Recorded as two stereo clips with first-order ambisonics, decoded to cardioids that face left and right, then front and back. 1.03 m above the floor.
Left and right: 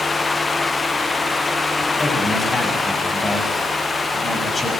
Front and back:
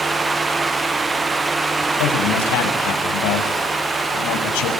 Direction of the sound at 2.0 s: 10° left.